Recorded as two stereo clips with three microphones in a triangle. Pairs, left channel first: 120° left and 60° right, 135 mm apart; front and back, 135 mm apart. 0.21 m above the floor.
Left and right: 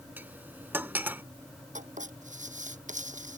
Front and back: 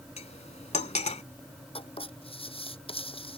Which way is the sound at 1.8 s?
45° right.